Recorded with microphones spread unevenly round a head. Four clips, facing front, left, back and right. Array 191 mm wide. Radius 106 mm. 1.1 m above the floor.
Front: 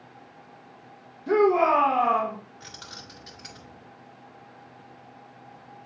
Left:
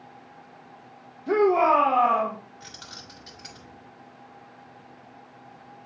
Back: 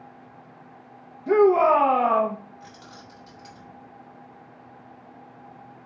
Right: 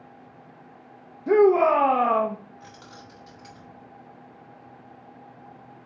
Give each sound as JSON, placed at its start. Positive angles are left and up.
{"t": 1.3, "sound": "a shout", "azimuth_deg": -90, "distance_m": 1.6}
{"t": 2.6, "sound": "keys jangling", "azimuth_deg": 20, "distance_m": 3.0}